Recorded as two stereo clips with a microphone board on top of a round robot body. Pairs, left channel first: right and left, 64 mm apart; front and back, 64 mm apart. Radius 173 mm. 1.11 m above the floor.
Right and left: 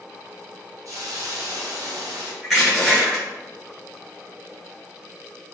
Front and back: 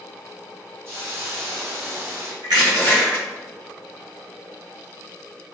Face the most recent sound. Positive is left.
turn(degrees=180)